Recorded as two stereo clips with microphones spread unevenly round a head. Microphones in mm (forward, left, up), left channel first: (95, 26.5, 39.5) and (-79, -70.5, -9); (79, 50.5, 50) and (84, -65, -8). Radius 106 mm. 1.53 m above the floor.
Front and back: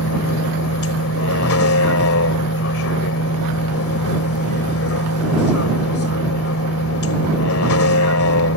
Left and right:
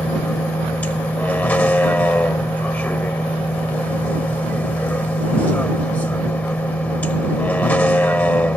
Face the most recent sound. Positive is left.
turn(degrees=25)